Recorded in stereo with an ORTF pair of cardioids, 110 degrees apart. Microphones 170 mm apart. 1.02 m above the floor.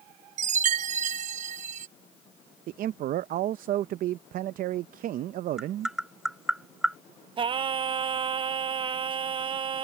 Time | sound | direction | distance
0.4 | a chime | 50° right | ?
2.7 | a man speaking | 60° right | ?
5.6 | tapping | 5° right | ?
7.4 | singing | 30° right | ?